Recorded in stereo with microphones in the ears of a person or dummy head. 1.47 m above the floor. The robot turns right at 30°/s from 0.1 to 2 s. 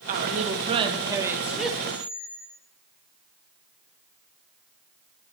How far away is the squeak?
About 0.9 m.